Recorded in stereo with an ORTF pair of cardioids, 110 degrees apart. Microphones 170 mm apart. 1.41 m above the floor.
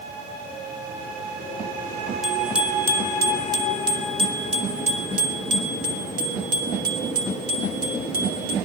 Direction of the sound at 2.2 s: Straight ahead.